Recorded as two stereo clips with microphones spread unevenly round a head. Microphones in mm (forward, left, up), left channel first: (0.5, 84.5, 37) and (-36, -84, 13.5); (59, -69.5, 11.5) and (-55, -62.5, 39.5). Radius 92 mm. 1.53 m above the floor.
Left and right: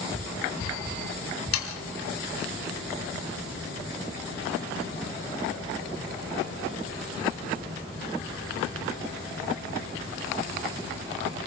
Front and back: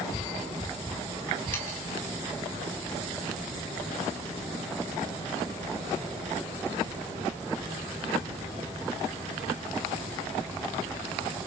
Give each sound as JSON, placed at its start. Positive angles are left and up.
{"t": 1.5, "sound": "sawing", "azimuth_deg": 75, "distance_m": 2.5}